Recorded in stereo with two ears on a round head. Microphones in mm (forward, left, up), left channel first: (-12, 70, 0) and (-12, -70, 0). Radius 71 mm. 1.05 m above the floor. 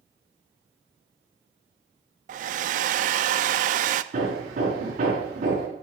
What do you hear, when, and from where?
2.3 s a hair dryer: 50° right (ahead or behind), 0.6 m
4.1 s hammering: 50° right (ahead or behind), 5 m